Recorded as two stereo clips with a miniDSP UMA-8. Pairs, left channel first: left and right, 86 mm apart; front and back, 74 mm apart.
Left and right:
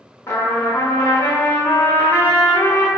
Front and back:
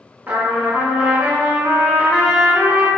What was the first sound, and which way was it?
A trumpet, 130° left.